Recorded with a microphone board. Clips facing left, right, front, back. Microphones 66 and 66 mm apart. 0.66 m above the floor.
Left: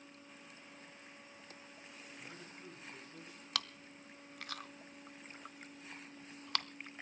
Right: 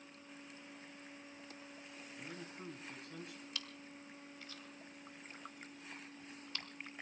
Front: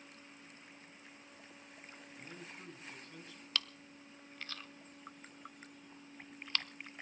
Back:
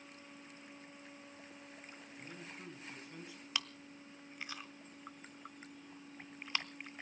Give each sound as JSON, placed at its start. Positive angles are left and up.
{"t": 2.2, "sound": "a man speaking", "azimuth_deg": -85, "distance_m": 4.5}
{"t": 3.5, "sound": "chewing", "azimuth_deg": 105, "distance_m": 0.6}